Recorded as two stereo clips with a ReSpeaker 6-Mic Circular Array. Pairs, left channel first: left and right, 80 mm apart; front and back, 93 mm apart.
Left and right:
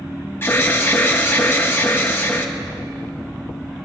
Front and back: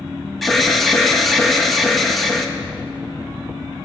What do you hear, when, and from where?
0.4 s an alarm: 90° left, 1.4 m